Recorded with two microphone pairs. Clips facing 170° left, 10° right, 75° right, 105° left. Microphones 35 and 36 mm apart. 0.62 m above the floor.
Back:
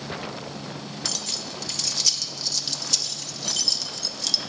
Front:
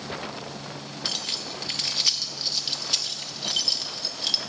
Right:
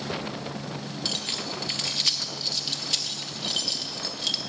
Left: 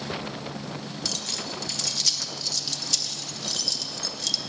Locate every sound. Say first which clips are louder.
1.1 s keys jangling: front 3 dB, right 2 dB; 40° right, 0.6 m